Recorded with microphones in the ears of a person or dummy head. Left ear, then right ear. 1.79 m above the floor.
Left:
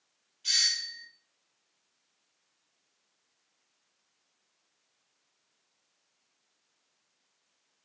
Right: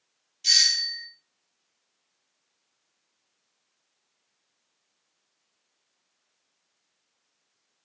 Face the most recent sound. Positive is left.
turn(degrees=-80)